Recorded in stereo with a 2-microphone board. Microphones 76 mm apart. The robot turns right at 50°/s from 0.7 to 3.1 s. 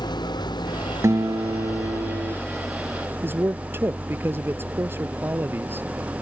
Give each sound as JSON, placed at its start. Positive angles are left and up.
{"t": 0.0, "sound": "an engine running", "azimuth_deg": 80}
{"t": 1.0, "sound": "a guitar", "azimuth_deg": -135}
{"t": 3.2, "sound": "a man speaking", "side_deg": -30}